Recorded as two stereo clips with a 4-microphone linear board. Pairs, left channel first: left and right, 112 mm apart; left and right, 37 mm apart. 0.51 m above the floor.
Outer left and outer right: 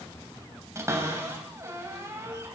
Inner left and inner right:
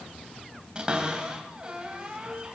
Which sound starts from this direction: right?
A cupboard door, at 0.8 s.